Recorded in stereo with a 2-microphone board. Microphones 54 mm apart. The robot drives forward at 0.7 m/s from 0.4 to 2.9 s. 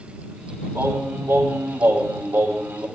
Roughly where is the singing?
Right.